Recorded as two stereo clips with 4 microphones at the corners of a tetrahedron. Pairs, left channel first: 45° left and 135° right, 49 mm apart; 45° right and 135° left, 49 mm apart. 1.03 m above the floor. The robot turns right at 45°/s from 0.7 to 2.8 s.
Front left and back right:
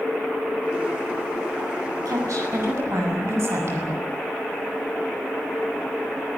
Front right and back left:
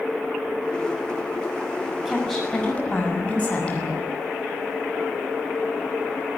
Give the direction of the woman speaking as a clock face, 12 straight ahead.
5 o'clock.